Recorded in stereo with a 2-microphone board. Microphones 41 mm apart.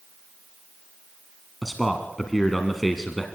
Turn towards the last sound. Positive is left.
turn(degrees=0)  # may be behind; listen again after turning